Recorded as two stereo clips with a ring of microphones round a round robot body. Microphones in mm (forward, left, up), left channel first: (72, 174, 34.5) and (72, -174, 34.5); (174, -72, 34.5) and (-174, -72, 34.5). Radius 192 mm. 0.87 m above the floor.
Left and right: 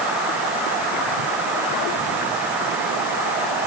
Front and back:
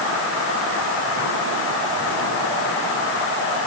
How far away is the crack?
No crack in this recording.